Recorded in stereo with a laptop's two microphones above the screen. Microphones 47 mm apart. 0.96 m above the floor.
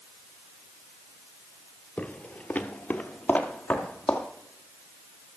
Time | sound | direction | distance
2.0 | footsteps | 25° left (ahead or behind) | 1.1 m